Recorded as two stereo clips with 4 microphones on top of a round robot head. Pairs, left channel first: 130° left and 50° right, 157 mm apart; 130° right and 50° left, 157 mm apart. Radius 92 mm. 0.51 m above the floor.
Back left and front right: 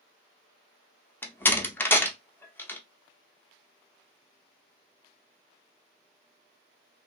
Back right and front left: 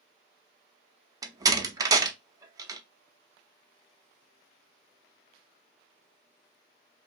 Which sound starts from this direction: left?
A door slam, at 1.2 s.